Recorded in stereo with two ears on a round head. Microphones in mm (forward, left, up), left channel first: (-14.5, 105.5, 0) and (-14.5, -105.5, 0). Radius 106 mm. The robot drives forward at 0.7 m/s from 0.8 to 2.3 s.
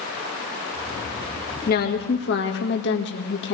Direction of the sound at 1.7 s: 40° left (ahead or behind).